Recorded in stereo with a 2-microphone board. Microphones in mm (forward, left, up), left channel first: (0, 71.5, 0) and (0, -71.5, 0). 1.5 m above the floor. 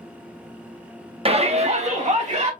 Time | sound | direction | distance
1.2 | a shout | 45° right (ahead or behind) | 0.8 m